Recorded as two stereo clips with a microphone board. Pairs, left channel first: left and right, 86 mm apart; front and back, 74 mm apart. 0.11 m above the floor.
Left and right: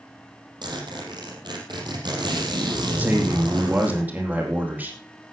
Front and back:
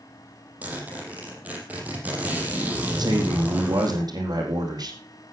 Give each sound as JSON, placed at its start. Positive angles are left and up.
{"t": 0.6, "sound": "a zipper", "azimuth_deg": -115, "distance_m": 4.5}
{"t": 3.0, "sound": "a man speaking", "azimuth_deg": -160, "distance_m": 4.0}